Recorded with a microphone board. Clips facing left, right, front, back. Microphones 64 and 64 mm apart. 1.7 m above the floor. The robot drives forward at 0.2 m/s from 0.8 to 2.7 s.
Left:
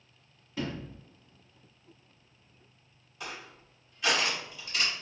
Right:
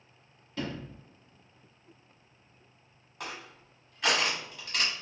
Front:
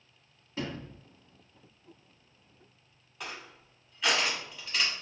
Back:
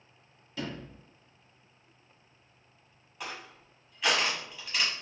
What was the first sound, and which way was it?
A sliding door, 25° left.